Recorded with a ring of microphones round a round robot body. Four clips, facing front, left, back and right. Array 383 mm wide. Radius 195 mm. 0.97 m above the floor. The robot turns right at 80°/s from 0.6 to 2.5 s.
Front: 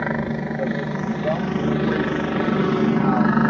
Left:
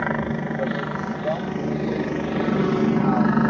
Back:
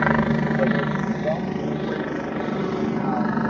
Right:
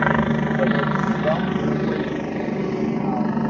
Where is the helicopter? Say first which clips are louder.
Right 5 dB, back 4 dB; 125° right; by 3.5 s 25° left.